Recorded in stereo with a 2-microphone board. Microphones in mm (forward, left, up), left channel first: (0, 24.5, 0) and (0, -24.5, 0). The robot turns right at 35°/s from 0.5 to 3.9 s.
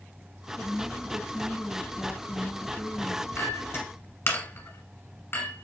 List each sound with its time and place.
0.6 s a woman speaking: 45° left, 1.1 m; by 3.3 s 140° left, 1.1 m
3.4 s a clink: 60° left (ahead or behind), 1.3 m; by 5.7 s 50° left (ahead or behind), 1.3 m